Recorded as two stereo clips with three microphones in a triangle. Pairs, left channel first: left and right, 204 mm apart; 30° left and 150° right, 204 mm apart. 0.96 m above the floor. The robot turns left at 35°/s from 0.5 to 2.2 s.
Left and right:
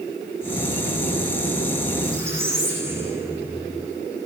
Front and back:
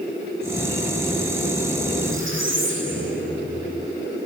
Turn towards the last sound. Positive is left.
turn(degrees=-170)